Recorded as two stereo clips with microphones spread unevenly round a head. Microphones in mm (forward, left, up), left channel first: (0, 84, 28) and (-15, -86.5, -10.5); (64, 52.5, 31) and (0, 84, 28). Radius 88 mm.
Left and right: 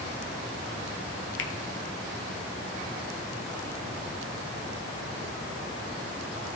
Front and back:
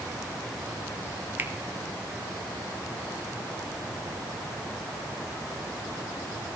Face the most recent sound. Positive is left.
turn(degrees=100)